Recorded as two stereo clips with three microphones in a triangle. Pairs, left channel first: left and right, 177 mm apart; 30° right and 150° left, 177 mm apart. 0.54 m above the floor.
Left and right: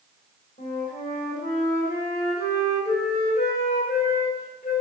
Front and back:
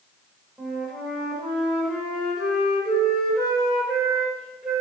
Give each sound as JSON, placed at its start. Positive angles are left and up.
{"t": 0.6, "sound": "a flute", "azimuth_deg": 60, "distance_m": 1.6}